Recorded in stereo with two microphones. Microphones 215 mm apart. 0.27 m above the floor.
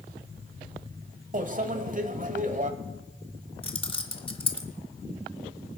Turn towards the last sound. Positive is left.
turn(degrees=25)  # may be behind; listen again after turning